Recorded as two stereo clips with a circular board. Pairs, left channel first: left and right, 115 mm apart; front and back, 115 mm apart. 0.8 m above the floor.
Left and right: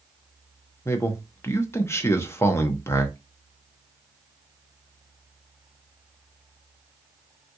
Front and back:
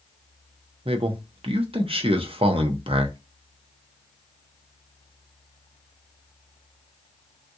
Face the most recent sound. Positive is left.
turn(degrees=155)